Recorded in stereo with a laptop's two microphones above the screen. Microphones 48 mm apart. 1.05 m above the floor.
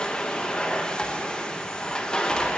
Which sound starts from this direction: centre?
A machine running, at 0.0 s.